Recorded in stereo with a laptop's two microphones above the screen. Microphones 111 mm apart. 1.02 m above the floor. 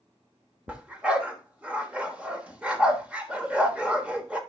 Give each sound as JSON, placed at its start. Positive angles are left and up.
{"t": 0.7, "sound": "a dog barking", "side_deg": -10, "distance_m": 0.9}